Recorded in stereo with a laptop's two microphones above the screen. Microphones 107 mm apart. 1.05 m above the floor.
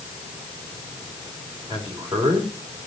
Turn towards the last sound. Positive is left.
turn(degrees=-45)  # may be behind; listen again after turning